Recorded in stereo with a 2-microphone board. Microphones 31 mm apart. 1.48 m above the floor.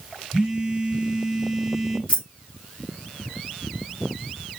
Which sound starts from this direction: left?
Keys jangling, at 2.1 s.